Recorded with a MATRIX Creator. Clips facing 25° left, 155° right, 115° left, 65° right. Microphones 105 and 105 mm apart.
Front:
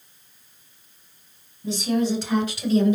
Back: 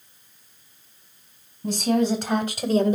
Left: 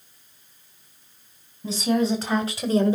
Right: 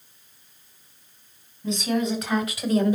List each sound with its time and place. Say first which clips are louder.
1.6 s a woman speaking: back 2 dB, left 2 dB; 170° left, 3.5 m; by 3.0 s 165° left, 1.8 m